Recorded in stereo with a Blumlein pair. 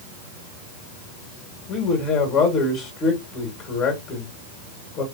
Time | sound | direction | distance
1.7 | a man speaking | 35° left | 2.5 m